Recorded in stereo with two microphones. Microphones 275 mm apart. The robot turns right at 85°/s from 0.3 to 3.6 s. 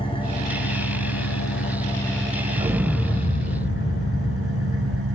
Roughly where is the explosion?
Ahead right.